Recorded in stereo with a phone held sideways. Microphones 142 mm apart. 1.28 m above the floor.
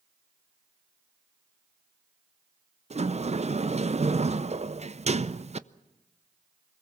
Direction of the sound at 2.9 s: 50° right (ahead or behind).